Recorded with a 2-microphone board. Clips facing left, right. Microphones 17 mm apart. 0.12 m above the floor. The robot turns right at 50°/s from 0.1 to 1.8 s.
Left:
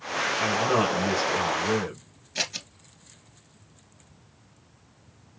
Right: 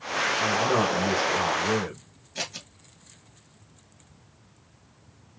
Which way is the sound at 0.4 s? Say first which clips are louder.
Left 1 dB; 105° left.